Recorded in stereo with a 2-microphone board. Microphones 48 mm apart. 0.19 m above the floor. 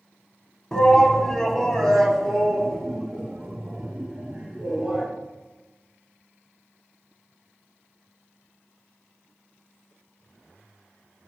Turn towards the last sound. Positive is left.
turn(degrees=-5)  # may be behind; listen again after turning